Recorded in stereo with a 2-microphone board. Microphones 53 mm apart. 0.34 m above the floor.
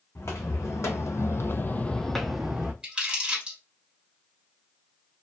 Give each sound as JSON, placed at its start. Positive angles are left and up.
{"t": 0.1, "sound": "footsteps", "side_deg": 55, "distance_m": 1.2}
{"t": 2.8, "sound": "crumpling", "side_deg": -20, "distance_m": 1.5}